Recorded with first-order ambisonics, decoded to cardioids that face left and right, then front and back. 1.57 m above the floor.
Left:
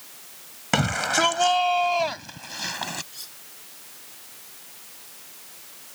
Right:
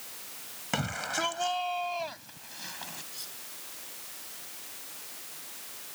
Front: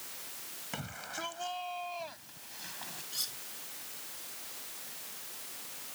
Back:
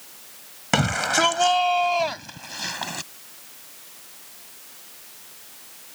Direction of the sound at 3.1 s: 10° left.